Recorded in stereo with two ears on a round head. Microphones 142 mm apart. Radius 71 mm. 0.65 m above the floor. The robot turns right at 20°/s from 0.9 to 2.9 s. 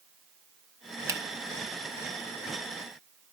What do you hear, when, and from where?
1.1 s a finger snap: 20° right (ahead or behind), 2 m; by 1.2 s 25° right (ahead or behind), 2 m